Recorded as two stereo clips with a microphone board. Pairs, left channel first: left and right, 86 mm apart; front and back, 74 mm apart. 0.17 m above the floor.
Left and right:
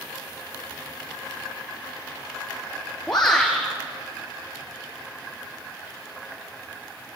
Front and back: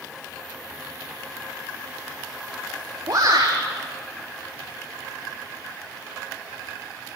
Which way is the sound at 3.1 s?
175° left.